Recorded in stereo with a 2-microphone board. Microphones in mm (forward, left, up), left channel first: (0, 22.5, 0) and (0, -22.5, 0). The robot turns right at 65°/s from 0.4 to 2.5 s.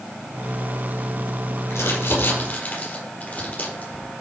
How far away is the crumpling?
About 4.5 m.